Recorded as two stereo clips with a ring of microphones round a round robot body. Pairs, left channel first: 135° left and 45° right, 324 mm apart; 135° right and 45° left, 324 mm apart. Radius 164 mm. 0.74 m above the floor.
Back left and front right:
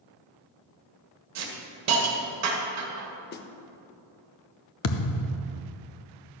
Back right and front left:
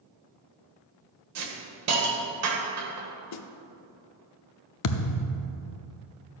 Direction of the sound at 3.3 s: 170° right.